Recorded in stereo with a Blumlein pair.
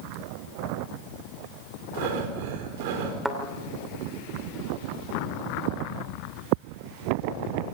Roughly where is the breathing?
Ahead right.